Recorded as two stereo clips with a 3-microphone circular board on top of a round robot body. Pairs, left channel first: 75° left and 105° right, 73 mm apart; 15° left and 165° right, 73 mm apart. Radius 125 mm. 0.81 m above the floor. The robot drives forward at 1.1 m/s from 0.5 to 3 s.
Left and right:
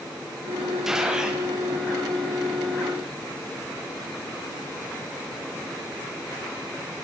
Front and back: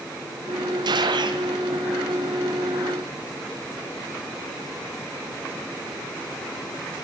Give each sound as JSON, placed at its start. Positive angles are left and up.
{"t": 0.8, "sound": "a gunshot", "azimuth_deg": 170, "distance_m": 1.2}